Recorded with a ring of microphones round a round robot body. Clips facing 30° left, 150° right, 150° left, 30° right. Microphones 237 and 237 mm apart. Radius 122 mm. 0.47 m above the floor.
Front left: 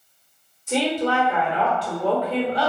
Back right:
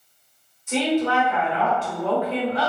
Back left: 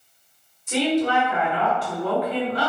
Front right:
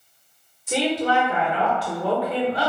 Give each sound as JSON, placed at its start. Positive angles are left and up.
{"t": 0.7, "sound": "a woman speaking", "azimuth_deg": -20, "distance_m": 1.3}